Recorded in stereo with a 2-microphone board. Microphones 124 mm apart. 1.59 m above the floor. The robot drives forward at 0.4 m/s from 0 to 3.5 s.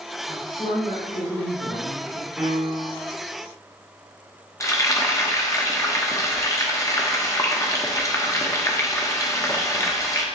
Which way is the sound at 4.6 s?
25° left (ahead or behind).